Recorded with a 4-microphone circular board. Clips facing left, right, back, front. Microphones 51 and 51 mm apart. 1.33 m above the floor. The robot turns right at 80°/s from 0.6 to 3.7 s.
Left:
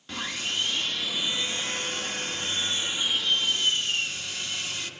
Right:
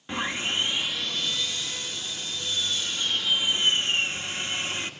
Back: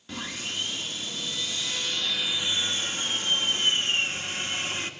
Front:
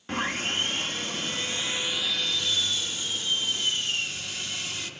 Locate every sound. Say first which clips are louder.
0.1 s sawing: right 4 dB, front 6 dB; 30° right, 1.1 m; by 4.9 s 140° right, 1.1 m